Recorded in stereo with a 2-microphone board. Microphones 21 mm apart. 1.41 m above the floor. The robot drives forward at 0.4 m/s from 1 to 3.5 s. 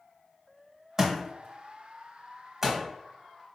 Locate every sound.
1.0 s a thud: 25° right (ahead or behind), 1.4 m; by 2.8 s 20° right (ahead or behind), 1.8 m